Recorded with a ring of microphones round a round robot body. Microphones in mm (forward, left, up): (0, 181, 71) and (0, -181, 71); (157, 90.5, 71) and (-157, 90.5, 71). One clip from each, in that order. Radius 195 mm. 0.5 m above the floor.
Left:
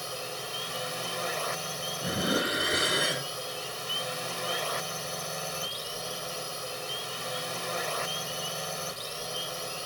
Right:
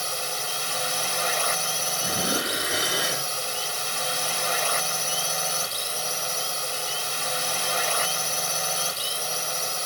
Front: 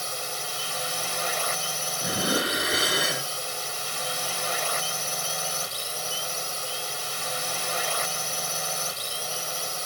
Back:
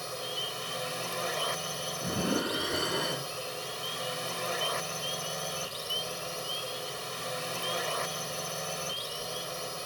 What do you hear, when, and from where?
0.0 s a drone: 55° right
2.0 s dishes clattering: 10° right